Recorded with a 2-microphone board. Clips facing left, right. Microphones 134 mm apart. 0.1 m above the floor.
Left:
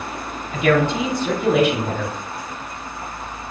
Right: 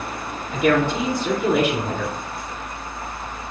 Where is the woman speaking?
5° right (ahead or behind), 1.6 m.